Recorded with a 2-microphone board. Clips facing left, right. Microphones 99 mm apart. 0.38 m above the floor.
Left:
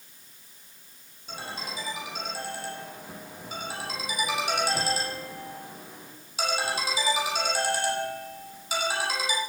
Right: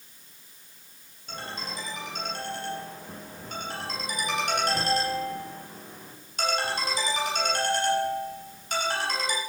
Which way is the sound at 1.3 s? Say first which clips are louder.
Even; 5° left (ahead or behind).